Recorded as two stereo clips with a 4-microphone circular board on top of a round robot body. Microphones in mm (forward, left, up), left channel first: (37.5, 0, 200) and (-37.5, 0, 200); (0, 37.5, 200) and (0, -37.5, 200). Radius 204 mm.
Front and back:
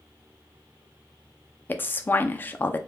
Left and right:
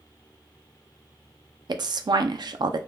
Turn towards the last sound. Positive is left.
turn(degrees=-65)